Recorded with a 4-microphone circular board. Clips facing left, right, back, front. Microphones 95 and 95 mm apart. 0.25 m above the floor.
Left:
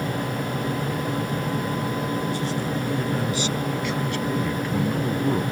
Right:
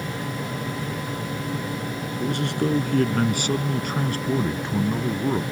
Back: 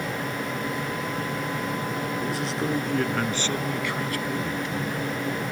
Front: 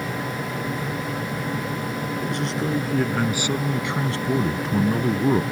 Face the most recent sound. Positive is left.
turn(degrees=-5)